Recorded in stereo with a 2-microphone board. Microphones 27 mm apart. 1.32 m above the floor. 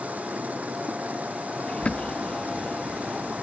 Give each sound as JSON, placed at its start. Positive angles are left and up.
{"t": 0.0, "sound": "running water", "side_deg": -70}
{"t": 1.7, "sound": "a bird", "side_deg": 50}